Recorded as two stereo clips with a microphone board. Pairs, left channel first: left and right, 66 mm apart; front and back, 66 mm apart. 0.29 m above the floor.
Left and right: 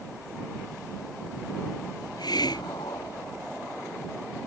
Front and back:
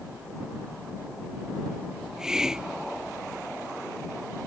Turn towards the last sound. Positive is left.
turn(degrees=100)